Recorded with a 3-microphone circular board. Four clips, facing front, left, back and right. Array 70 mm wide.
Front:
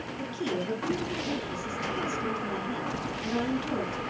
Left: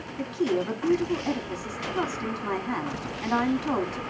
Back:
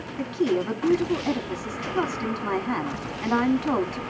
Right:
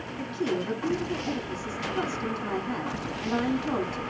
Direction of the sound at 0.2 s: 165° left.